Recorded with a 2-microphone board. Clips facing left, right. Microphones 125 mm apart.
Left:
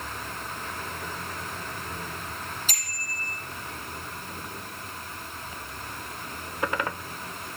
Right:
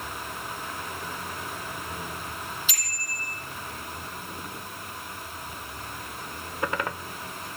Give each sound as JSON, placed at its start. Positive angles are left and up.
{"t": 2.7, "sound": "a bicycle bell", "side_deg": 45, "distance_m": 5.0}